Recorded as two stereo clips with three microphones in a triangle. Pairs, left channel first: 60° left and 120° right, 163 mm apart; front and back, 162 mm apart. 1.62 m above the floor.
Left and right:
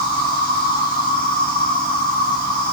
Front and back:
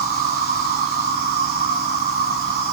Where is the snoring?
I don't hear snoring.